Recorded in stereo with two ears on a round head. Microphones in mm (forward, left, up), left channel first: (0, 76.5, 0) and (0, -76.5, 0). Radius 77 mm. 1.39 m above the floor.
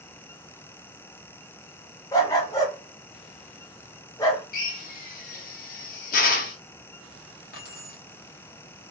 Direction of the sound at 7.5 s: 60° left (ahead or behind).